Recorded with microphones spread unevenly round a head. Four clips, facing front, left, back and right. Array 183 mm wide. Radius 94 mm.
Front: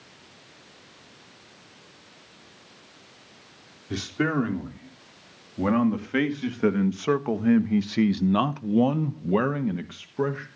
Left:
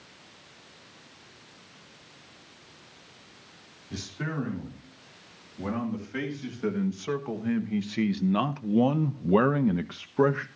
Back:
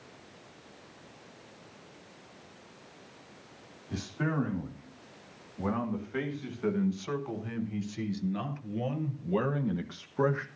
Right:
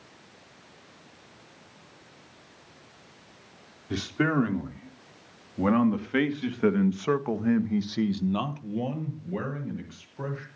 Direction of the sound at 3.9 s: 40° right.